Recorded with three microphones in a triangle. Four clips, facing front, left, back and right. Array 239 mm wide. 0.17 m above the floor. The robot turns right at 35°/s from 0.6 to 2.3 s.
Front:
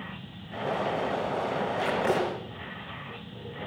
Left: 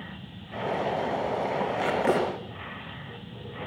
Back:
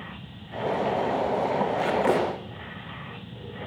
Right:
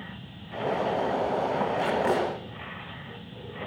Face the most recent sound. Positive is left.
turn(degrees=135)